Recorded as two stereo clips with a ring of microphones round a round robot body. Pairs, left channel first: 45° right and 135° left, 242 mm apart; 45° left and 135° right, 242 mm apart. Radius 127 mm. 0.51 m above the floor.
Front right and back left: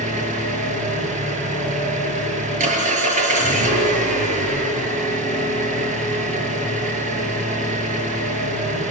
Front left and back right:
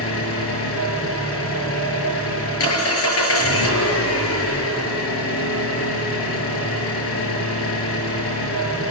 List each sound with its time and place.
0.0 s an engine running: 75° left, 7 m